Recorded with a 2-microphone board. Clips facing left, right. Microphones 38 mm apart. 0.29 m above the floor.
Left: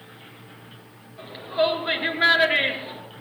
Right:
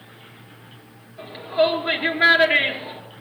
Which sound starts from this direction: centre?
A shout, at 1.2 s.